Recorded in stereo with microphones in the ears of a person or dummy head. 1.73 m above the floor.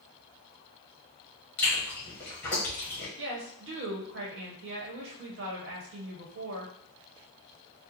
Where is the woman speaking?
65° right (ahead or behind), 1.3 m.